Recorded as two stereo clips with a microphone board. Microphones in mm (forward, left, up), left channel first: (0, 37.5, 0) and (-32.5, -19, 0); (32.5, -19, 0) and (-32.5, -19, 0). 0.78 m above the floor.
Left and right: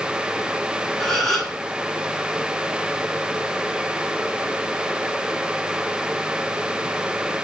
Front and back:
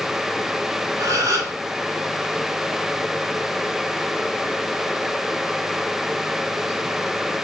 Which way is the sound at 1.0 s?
140° left.